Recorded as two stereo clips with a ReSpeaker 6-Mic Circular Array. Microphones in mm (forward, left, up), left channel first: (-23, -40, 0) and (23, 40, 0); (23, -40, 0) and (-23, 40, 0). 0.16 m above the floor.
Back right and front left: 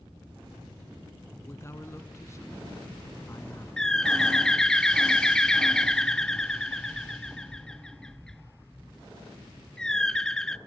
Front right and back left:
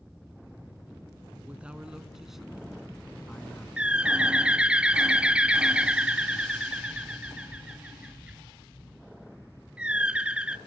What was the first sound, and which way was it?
A man speaking, 170° right.